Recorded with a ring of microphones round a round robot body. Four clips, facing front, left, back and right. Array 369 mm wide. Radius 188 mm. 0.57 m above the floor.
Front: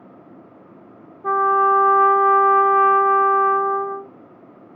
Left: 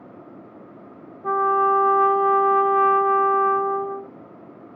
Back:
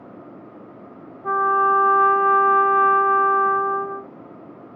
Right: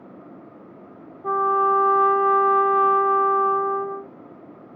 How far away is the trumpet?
About 0.9 m.